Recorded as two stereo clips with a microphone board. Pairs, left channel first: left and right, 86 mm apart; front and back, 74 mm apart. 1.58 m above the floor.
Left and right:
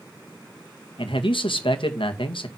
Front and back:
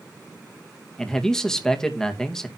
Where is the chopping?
I don't hear chopping.